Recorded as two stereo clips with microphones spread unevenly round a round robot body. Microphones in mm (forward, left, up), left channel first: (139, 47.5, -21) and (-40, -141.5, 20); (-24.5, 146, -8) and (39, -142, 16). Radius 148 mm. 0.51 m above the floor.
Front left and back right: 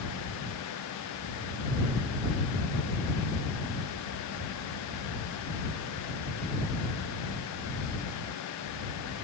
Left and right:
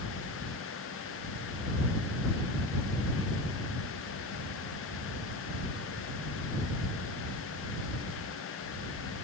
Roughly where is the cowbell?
No cowbell in this recording.